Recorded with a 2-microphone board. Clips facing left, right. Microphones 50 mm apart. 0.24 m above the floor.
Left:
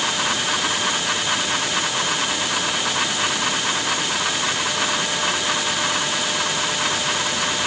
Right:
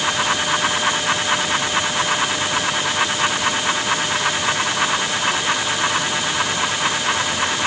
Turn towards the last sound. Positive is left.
No sound to turn to.